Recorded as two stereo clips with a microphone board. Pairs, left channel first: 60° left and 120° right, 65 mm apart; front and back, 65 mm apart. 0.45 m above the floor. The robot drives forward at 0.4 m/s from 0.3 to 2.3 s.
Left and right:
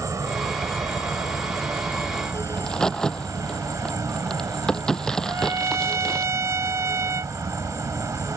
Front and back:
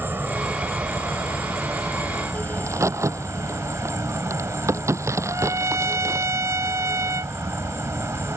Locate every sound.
0.0 s an insect: 135° right; by 8.4 s 145° right
2.6 s a crack: 140° left
5.2 s a trumpet: 150° right